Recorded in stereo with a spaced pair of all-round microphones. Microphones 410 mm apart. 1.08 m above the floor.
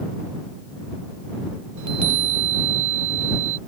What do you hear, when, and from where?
1.8 s a chime: 45° right (ahead or behind)